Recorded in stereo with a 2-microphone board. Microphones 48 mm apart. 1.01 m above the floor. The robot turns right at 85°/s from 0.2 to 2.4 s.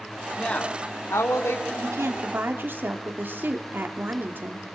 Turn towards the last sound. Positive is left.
turn(degrees=-45)